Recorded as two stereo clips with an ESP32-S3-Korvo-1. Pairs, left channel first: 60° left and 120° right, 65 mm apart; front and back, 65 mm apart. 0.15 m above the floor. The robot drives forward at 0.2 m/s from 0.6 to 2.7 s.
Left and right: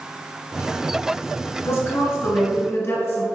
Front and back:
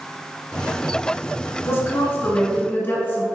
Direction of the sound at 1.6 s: 35° left.